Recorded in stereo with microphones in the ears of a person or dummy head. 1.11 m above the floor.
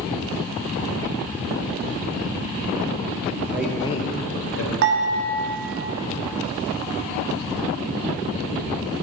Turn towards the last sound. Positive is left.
turn(degrees=-60)  # may be behind; listen again after turning